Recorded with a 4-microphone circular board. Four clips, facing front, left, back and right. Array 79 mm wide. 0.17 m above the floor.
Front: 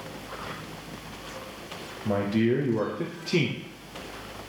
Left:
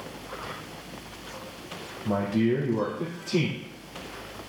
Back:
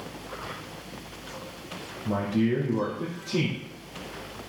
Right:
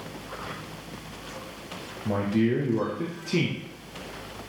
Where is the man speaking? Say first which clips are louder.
Even, front 1 dB; 25° right, 3 m.